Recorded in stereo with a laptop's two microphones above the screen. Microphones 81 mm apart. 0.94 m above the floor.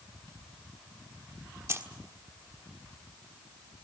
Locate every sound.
1.7 s keys jangling: 35° right (ahead or behind), 1.4 m